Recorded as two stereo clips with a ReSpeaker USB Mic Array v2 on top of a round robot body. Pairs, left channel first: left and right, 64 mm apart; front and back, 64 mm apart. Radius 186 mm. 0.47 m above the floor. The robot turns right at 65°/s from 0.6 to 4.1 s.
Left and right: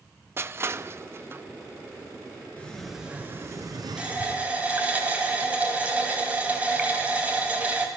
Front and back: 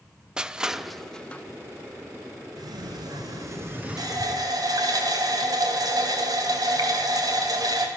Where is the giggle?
I don't hear a giggle.